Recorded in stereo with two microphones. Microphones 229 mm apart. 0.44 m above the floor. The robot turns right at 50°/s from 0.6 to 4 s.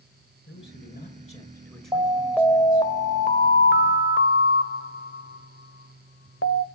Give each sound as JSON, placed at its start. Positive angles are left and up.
{"t": 0.5, "sound": "a man speaking", "azimuth_deg": 115, "distance_m": 7.0}
{"t": 1.9, "sound": "an alarm", "azimuth_deg": -25, "distance_m": 1.1}